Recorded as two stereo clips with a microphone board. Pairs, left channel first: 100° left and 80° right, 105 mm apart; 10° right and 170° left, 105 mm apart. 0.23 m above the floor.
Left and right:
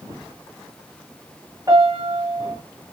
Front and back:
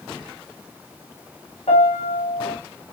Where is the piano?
25° right, 5 m.